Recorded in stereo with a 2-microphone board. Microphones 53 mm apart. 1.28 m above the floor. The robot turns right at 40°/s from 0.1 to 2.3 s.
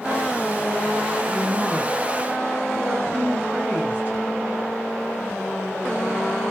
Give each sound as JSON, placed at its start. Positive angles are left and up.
{"t": 1.3, "sound": "a woman speaking", "azimuth_deg": 175, "distance_m": 2.0}